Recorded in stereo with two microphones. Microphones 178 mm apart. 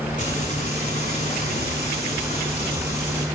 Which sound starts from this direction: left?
Frying, at 0.2 s.